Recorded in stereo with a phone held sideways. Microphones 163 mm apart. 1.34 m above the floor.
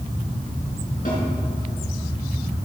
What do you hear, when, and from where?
1.1 s a snare drum: 65° left (ahead or behind), 4.5 m